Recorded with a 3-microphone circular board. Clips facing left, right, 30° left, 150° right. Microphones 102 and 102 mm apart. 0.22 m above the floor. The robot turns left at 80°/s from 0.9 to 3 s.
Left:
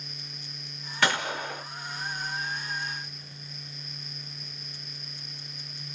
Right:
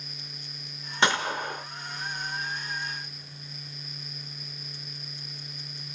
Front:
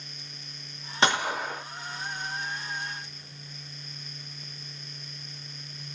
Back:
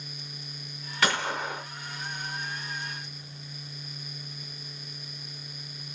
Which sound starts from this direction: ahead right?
A gunshot, at 1.0 s.